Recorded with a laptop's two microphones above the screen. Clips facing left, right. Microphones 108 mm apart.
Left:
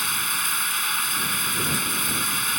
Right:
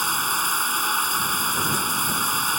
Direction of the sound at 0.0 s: 35° right (ahead or behind).